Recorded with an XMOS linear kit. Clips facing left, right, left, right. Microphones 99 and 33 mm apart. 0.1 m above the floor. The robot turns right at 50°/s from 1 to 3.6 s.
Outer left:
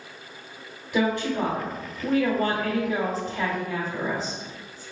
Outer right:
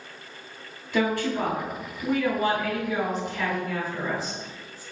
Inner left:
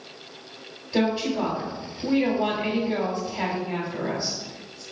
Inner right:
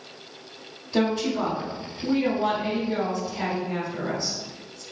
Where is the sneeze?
I don't hear a sneeze.